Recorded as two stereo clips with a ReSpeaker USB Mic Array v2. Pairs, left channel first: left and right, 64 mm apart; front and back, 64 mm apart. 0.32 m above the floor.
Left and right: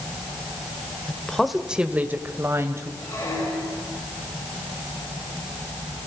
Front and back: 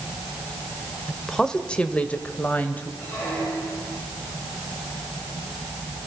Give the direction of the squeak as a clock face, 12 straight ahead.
10 o'clock.